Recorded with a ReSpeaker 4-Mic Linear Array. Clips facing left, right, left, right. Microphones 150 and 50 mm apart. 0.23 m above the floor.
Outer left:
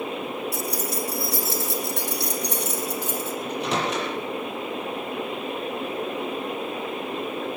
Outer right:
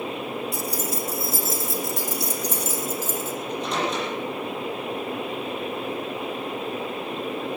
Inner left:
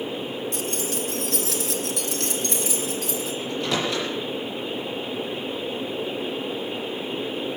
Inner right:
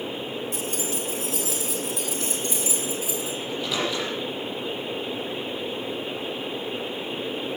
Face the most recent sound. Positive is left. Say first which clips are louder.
# outer left 1 dB, inner left 2 dB
turn(degrees=70)  # may be behind; listen again after turning